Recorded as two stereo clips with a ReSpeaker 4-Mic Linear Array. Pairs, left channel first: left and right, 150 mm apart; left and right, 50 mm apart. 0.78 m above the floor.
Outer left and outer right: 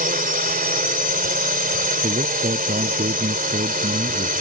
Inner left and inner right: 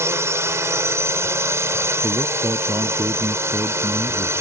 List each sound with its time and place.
0.0 s a drone: 70° right (ahead or behind)
2.0 s a man speaking: 65° right (ahead or behind)